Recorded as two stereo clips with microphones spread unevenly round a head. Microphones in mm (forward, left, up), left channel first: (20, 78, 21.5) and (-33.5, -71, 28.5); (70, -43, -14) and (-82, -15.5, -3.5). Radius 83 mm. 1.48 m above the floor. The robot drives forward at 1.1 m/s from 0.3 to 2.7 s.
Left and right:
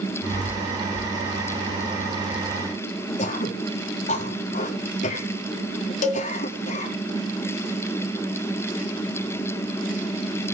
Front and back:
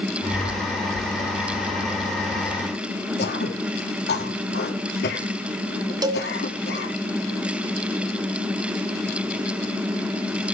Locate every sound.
3.2 s throat clearing: 25° left, 4 m
6.0 s a cowbell: 110° left, 2 m